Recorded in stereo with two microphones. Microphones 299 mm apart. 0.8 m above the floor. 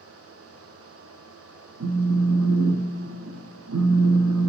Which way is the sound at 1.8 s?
80° right.